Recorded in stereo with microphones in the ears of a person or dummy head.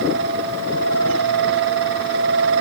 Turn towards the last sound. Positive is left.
No sound to turn to.